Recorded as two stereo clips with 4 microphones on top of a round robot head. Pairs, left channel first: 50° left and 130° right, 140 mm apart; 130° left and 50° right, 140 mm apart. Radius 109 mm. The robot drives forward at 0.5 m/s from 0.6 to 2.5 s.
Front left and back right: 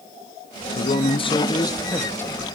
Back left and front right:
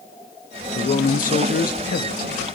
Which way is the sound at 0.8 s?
90° left.